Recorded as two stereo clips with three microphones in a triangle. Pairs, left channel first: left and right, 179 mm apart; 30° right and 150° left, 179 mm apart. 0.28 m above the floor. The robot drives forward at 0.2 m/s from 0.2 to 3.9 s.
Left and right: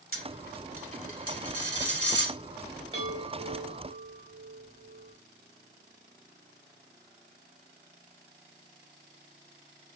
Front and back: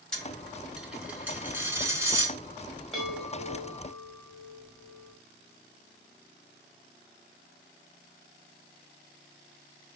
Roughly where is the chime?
Behind right.